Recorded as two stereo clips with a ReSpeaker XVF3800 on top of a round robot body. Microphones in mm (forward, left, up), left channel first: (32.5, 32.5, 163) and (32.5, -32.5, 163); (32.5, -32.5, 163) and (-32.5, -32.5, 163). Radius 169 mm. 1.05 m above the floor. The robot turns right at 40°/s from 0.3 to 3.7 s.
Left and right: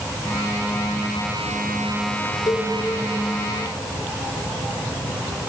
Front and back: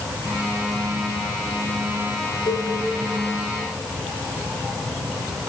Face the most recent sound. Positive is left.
turn(degrees=95)